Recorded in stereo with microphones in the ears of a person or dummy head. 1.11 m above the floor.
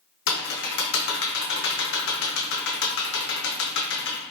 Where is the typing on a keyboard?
60° left (ahead or behind), 0.6 m.